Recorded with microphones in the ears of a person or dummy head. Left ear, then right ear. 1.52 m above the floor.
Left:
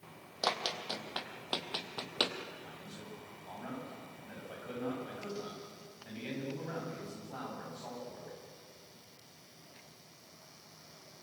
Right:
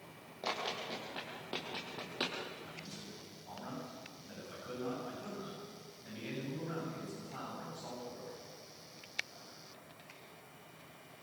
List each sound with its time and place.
0.4 s running footsteps: 55° left (ahead or behind), 3.5 m; by 2.4 s 35° left (ahead or behind), 3 m
2.6 s a man speaking: 20° left (ahead or behind), 9 m